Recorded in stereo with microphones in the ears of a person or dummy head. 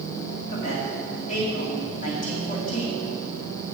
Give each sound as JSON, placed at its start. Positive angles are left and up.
{"t": 0.5, "sound": "a woman speaking", "side_deg": 45, "distance_m": 1.9}